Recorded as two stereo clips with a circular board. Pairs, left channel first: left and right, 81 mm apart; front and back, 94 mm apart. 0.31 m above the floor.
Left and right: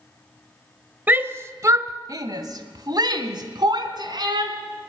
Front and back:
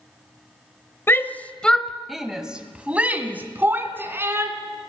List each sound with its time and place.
1.1 s a shout: 40° right, 1.4 m; by 4.5 s 115° right, 3.5 m